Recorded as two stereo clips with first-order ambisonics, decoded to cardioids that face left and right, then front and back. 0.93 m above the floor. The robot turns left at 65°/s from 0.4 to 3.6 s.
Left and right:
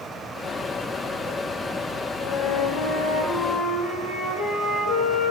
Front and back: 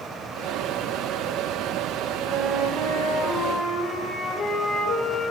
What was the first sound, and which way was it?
A flute, 150° left.